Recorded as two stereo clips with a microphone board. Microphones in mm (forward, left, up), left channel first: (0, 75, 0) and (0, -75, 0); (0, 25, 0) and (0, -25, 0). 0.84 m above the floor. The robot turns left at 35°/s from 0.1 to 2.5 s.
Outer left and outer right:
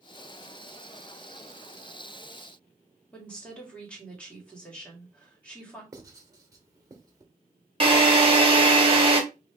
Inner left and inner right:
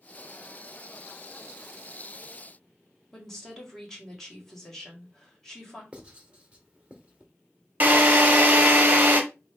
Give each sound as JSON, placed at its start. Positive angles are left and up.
{"t": 3.1, "sound": "a woman speaking", "side_deg": 10, "distance_m": 1.7}
{"t": 5.9, "sound": "writing", "side_deg": -25, "distance_m": 0.9}
{"t": 7.8, "sound": "a drill", "side_deg": -35, "distance_m": 1.2}